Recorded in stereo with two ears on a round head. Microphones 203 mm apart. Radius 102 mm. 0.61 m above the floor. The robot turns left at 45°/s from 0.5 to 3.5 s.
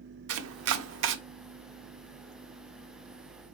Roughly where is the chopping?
Right.